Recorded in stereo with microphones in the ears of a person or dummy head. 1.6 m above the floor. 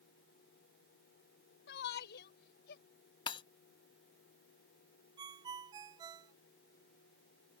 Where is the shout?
65° left (ahead or behind); by 2.8 s 60° left (ahead or behind).